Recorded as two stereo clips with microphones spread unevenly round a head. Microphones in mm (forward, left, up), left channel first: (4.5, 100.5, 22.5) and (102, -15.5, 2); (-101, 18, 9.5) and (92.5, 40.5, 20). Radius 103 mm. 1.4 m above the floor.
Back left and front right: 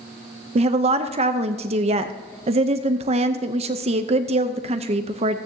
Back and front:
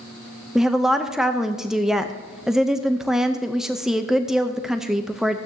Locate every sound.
0.6 s a woman speaking: 85° right, 0.6 m